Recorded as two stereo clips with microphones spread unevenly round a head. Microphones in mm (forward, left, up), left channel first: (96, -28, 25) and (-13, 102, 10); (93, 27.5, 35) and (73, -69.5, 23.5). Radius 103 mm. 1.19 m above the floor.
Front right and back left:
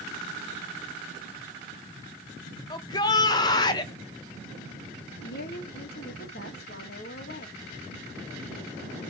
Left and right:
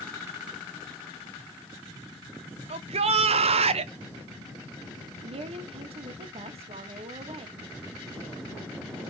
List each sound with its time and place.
2.7 s a shout: 125° right, 0.9 m
5.2 s a woman speaking: 95° right, 1.8 m